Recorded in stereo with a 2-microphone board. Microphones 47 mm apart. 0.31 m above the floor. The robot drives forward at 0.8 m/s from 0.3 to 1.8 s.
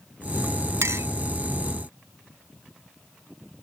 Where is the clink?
75° right (ahead or behind); by 1.1 s 70° right (ahead or behind).